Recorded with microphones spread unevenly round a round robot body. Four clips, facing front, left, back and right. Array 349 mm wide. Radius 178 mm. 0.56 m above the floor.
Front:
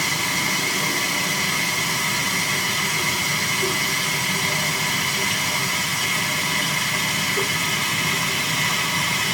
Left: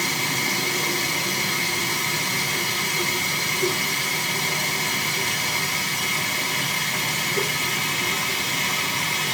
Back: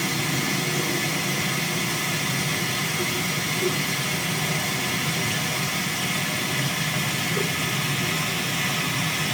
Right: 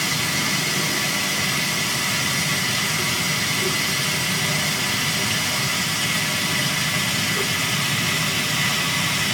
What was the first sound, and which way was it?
Running water, straight behind.